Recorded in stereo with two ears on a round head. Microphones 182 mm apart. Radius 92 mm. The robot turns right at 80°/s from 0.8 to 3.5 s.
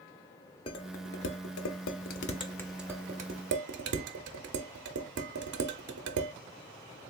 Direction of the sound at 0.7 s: 25° left (ahead or behind).